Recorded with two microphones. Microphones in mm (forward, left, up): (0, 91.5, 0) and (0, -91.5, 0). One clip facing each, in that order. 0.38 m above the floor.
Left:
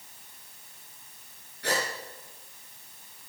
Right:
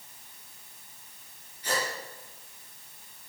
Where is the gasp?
70° left (ahead or behind), 5 m.